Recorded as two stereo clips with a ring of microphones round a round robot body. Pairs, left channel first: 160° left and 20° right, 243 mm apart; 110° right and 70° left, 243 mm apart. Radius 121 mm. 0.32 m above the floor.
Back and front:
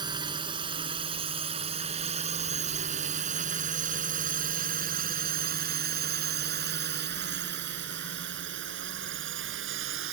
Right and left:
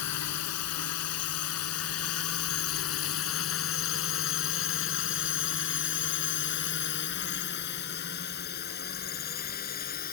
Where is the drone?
95° right; by 10.1 s 60° right.